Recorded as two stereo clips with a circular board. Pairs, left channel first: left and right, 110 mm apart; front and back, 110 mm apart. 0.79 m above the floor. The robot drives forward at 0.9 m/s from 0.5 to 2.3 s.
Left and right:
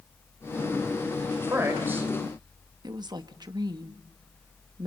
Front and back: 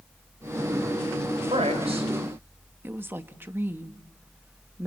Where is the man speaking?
155° right, 3.5 m; by 2.1 s 160° right, 4 m.